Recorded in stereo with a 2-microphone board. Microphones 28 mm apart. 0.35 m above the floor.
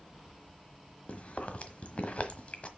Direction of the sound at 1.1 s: 55° left (ahead or behind).